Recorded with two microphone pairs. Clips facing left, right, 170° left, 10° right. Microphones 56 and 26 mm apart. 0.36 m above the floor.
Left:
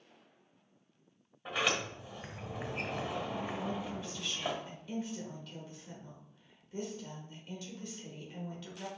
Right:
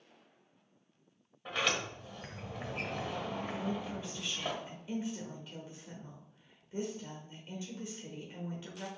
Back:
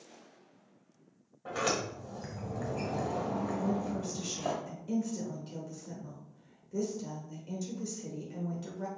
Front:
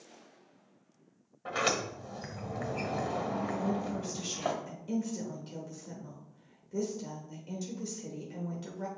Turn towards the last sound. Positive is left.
turn(degrees=-55)